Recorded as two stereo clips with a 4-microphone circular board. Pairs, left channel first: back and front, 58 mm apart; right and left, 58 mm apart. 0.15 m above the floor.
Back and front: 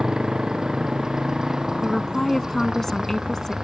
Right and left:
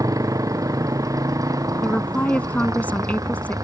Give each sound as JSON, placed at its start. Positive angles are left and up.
{"t": 0.0, "sound": "a motorcycle", "azimuth_deg": 80}
{"t": 1.8, "sound": "a woman speaking", "azimuth_deg": -105}